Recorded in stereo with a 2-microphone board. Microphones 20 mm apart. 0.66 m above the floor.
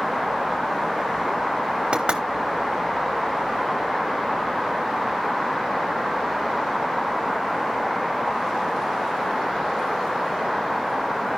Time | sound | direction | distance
1.9 | knocking | 60° right (ahead or behind) | 1.7 m